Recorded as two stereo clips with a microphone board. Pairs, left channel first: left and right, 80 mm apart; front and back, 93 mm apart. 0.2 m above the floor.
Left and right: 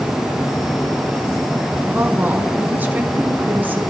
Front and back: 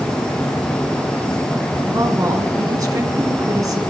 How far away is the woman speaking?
About 2.5 m.